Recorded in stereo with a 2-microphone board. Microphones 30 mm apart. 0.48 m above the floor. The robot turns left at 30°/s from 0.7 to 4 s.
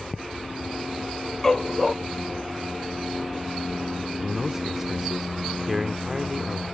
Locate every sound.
1.4 s a dog barking: 15° left (ahead or behind); by 1.9 s centre (ahead or behind)
4.2 s a man speaking: 10° right (ahead or behind)